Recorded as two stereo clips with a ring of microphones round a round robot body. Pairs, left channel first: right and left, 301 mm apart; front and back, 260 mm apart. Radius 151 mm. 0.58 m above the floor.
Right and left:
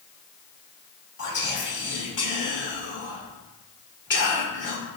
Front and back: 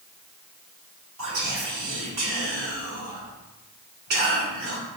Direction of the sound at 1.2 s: 140° right.